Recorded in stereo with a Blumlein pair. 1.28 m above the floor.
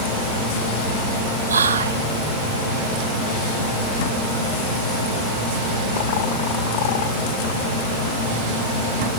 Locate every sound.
1.5 s whispering: 70° right, 0.7 m